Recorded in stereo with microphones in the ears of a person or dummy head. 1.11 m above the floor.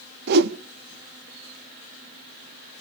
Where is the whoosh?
50° right (ahead or behind), 1.1 m.